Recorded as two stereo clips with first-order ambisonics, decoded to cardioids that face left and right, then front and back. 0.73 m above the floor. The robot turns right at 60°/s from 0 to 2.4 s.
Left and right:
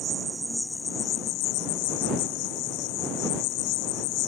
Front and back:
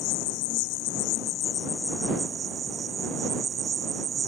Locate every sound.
0.0 s an insect: 30° right; by 4.3 s 110° left